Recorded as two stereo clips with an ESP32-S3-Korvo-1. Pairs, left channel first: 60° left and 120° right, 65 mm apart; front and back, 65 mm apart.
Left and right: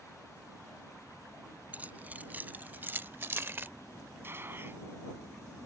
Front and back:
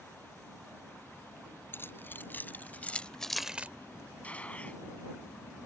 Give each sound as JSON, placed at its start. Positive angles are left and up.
{"t": 1.7, "sound": "keys jangling", "azimuth_deg": -55}
{"t": 4.2, "sound": "a gunshot", "azimuth_deg": -70}